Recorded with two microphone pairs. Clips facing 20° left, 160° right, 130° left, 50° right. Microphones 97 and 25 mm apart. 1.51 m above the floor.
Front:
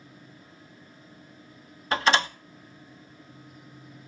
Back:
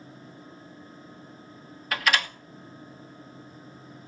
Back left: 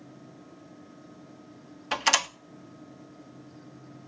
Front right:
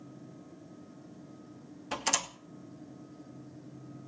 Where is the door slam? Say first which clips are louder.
Front 4 dB, back left 8 dB; 80° left, 0.9 m.